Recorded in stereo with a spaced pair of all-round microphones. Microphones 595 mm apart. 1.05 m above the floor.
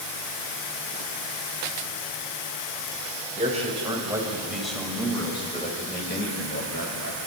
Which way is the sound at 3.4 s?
10° right (ahead or behind).